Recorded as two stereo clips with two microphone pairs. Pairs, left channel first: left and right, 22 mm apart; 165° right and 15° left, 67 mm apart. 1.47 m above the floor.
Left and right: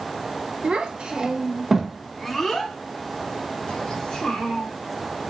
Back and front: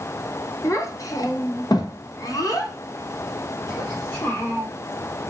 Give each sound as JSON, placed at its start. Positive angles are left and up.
{"t": 0.6, "sound": "a child speaking", "azimuth_deg": -120, "distance_m": 1.0}